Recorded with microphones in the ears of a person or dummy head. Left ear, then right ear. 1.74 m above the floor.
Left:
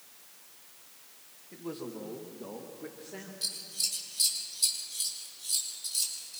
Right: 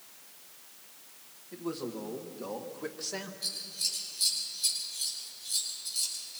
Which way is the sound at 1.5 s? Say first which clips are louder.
Right 3 dB; centre (ahead or behind).